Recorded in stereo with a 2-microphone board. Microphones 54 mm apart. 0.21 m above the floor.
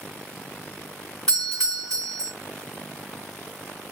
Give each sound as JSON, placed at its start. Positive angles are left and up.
{"t": 1.3, "sound": "a doorbell", "side_deg": 10, "distance_m": 1.9}